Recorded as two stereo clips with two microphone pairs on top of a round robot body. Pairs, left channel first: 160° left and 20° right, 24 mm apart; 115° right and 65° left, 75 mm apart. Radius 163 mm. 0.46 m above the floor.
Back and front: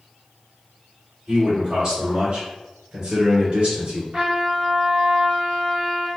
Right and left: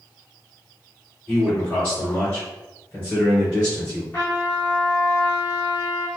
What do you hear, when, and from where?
1.3 s a man speaking: 50° right, 1.8 m; by 4.0 s 45° right, 3 m
4.1 s a trumpet: 50° right, 1.9 m